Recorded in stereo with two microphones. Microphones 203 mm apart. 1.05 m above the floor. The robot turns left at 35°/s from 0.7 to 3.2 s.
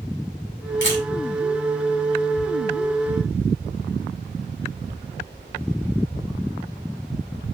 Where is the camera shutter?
70° left (ahead or behind), 4.5 m; by 1.0 s 60° left (ahead or behind), 4.5 m.